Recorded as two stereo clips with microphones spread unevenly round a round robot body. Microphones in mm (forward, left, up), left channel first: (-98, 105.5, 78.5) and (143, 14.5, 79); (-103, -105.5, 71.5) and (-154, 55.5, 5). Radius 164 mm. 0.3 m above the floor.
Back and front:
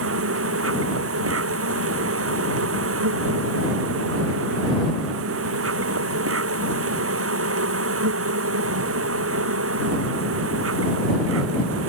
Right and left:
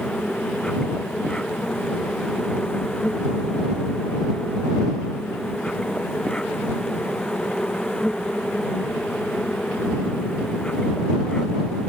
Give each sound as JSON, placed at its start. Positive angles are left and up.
{"t": 0.0, "sound": "an insect", "azimuth_deg": 15}